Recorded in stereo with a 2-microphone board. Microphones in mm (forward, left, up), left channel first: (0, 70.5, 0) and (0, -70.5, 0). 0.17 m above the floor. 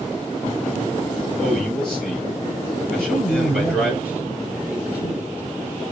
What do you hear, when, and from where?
1.4 s a man speaking: 5° left (ahead or behind), 3.5 m
3.0 s a man speaking: 10° right (ahead or behind), 3 m